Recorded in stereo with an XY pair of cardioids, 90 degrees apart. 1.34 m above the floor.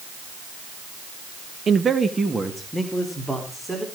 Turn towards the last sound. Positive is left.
turn(degrees=-10)